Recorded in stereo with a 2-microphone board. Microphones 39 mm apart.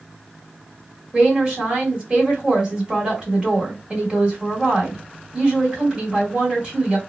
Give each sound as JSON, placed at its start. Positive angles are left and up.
{"t": 1.1, "sound": "a woman speaking", "side_deg": -30, "distance_m": 1.6}